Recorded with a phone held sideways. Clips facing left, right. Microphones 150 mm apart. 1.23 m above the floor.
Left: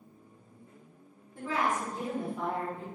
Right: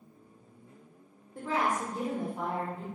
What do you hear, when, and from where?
1.4 s a woman speaking: 40° right (ahead or behind), 1.1 m